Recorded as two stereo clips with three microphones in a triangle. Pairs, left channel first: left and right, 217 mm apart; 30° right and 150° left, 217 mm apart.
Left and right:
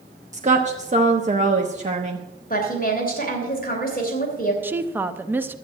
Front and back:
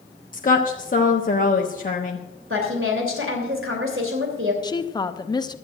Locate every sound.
0.3 s a woman speaking: 55° right, 1.1 m
2.5 s a woman speaking: 135° left, 2.5 m
4.6 s a woman speaking: 30° right, 0.7 m